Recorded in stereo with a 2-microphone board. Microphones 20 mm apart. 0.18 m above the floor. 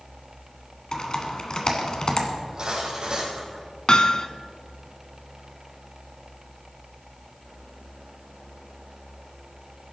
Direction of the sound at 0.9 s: 40° left (ahead or behind).